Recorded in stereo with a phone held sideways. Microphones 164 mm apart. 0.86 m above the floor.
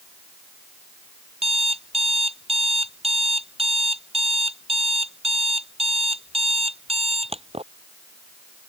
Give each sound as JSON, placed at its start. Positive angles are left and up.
{"t": 1.4, "sound": "an alarm clock", "side_deg": -35}